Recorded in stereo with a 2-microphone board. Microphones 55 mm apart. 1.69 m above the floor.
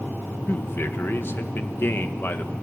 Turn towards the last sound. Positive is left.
turn(degrees=45)  # may be behind; listen again after turning